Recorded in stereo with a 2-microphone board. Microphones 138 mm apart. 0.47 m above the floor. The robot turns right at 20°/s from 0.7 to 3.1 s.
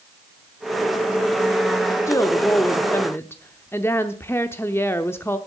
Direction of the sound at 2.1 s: 20° left (ahead or behind).